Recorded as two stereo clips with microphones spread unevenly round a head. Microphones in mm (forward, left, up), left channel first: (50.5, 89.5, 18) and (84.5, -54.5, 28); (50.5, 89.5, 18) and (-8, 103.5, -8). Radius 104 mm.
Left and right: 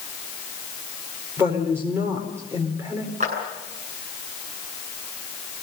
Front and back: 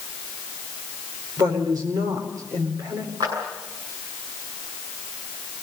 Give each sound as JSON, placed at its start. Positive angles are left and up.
{"t": 1.4, "sound": "a woman speaking", "azimuth_deg": -155, "distance_m": 4.5}
{"t": 3.2, "sound": "a clap", "azimuth_deg": -135, "distance_m": 8.5}